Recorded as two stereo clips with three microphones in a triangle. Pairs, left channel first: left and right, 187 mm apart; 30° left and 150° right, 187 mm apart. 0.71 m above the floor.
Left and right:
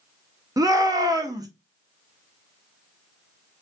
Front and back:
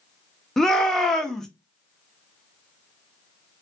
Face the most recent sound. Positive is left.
turn(degrees=-55)